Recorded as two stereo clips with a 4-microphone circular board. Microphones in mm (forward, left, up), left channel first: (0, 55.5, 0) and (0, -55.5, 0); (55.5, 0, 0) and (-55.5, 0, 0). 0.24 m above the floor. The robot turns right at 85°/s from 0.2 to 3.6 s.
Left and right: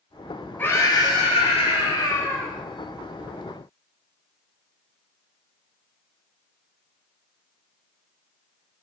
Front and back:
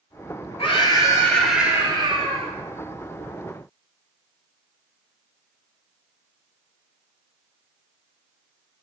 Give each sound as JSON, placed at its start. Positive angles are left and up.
{"t": 0.6, "sound": "a scream", "azimuth_deg": 15, "distance_m": 4.5}